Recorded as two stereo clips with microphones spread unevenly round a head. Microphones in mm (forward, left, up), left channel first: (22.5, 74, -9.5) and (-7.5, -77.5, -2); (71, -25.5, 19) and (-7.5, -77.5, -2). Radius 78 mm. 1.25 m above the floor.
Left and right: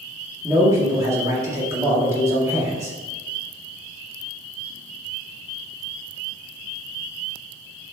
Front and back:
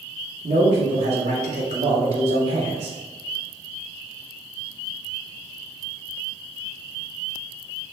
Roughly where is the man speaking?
Behind.